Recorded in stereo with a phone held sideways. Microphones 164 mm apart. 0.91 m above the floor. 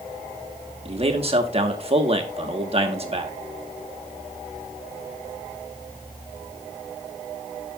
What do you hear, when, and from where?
0.8 s a man speaking: 40° right (ahead or behind), 1.2 m